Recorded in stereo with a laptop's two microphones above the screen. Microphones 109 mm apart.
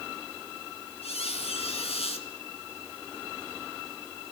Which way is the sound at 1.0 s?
70° left (ahead or behind).